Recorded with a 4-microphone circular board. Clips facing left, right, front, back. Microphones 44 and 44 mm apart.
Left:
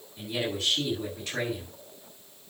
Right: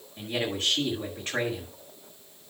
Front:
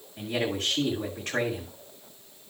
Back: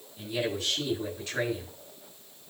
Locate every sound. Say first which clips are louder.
0.2 s a man speaking: right 1 dB, front 2 dB; 35° right, 7 m